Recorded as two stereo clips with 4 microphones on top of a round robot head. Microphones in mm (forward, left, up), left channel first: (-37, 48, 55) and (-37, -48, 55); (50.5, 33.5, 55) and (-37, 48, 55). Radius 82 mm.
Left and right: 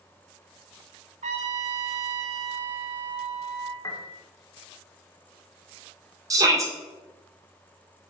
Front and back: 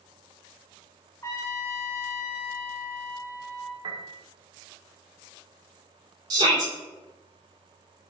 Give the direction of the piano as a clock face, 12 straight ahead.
7 o'clock.